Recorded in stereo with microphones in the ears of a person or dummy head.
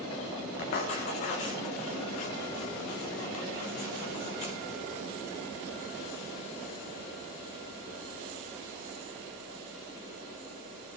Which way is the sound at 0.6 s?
35° left (ahead or behind).